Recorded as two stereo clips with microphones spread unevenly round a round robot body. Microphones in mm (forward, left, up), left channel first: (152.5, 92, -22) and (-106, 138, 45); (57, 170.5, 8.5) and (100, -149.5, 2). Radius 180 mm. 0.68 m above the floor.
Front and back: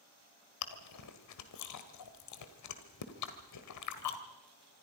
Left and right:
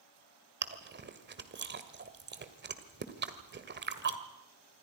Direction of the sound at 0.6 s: 25° right.